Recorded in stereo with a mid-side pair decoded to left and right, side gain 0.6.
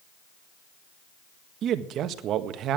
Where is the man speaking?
55° right, 1.6 m.